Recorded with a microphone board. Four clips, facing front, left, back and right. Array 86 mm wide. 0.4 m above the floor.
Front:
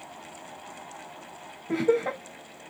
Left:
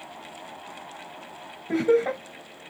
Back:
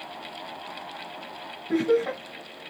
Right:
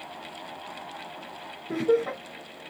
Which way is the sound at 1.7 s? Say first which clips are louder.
Left 3 dB, back 2 dB; 55° left.